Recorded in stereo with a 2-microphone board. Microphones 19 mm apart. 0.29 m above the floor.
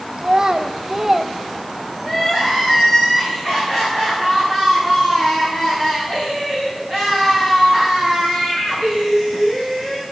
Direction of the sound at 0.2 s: 40° right (ahead or behind).